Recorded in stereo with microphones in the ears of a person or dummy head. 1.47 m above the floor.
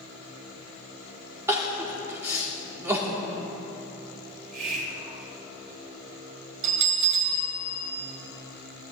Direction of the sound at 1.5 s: 10° right (ahead or behind).